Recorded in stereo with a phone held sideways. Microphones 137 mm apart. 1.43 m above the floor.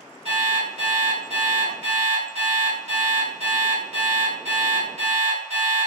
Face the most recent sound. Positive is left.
turn(degrees=-50)  # may be behind; listen again after turning